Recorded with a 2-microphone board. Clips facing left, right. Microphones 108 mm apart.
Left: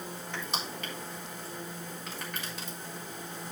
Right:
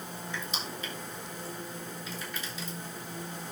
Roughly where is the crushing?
Left.